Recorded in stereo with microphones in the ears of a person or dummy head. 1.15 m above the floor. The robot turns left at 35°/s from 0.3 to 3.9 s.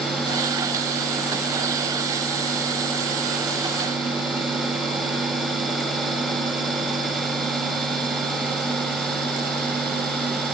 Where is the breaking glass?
I don't hear breaking glass.